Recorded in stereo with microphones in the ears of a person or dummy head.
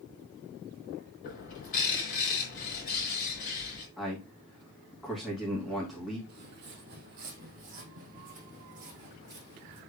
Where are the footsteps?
50° right (ahead or behind), 2.5 m; by 9.8 s 35° right (ahead or behind), 4 m.